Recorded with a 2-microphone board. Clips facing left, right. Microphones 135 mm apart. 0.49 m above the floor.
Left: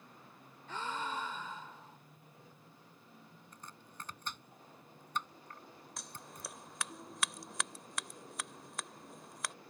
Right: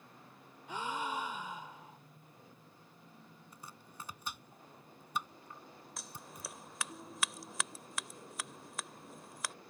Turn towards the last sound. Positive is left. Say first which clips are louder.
# even
turn(degrees=0)  # may be behind; listen again after turning